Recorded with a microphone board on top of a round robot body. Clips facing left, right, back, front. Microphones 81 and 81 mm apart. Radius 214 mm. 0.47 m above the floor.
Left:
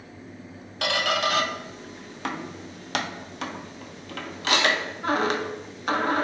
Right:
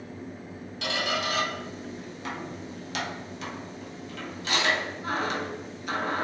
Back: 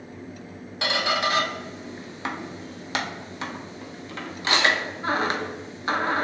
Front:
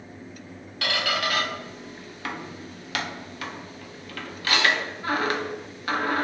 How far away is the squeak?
About 0.6 m.